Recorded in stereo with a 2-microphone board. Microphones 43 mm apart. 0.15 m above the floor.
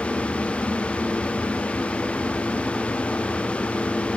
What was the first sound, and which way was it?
Only background noise.